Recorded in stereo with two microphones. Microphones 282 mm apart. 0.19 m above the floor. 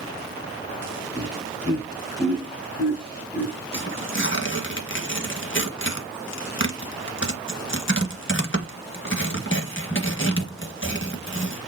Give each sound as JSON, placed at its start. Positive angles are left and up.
{"t": 1.1, "sound": "laughter", "side_deg": 5, "distance_m": 5.5}
{"t": 3.7, "sound": "tearing paper", "side_deg": 45, "distance_m": 1.7}